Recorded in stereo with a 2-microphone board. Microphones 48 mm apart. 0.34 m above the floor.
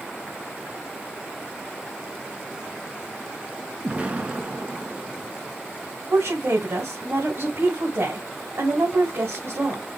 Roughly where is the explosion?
Right.